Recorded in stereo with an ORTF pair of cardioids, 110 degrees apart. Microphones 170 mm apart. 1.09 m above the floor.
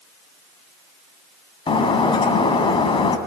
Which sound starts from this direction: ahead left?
Breaking glass, at 1.7 s.